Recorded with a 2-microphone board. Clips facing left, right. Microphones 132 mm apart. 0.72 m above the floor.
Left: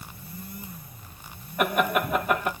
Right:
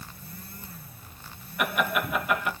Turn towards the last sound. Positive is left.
turn(degrees=40)  # may be behind; listen again after turning